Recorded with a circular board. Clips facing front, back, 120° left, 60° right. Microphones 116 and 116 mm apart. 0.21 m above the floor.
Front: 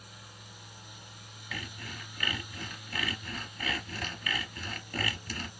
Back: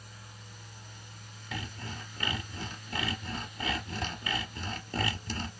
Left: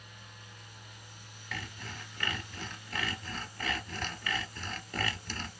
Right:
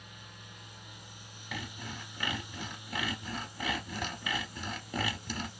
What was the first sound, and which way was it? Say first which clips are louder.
Sawing: back 3 dB, right 2 dB; 130° right.